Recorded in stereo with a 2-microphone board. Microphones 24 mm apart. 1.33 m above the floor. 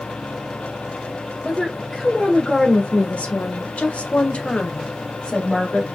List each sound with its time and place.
1.4 s a woman speaking: 25° left (ahead or behind), 1.7 m